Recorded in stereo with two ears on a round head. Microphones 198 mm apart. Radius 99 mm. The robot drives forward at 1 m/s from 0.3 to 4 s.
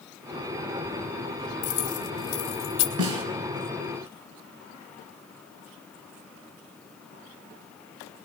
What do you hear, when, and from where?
1.6 s keys jangling: 70° left (ahead or behind), 3.5 m; by 2.9 s 80° left, 3 m
3.0 s a snare drum: 85° right, 4.5 m; by 3.2 s 80° right, 4.5 m